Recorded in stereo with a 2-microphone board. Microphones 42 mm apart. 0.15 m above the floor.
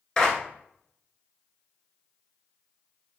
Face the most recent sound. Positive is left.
turn(degrees=20)  # may be behind; listen again after turning